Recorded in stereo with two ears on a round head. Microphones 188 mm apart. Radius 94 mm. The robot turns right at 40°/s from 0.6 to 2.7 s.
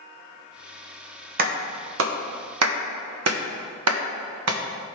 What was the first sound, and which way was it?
A clap, 45° right (ahead or behind).